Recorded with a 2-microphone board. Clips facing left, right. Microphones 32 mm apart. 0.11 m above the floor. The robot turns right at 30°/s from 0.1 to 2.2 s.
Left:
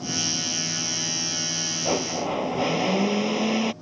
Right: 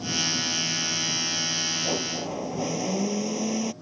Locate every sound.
1.9 s a blender: 40° left (ahead or behind); by 3.7 s 45° left (ahead or behind)